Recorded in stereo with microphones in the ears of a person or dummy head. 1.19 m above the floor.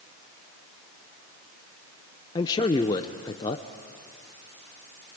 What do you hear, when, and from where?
2.4 s a man speaking: 20° left (ahead or behind), 0.6 m